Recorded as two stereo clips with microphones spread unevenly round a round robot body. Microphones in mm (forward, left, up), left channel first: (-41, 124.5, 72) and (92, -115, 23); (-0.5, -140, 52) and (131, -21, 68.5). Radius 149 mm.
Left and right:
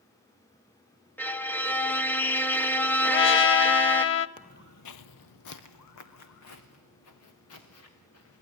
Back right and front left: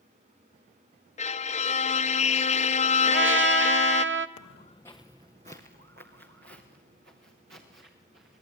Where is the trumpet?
70° left, 0.7 m.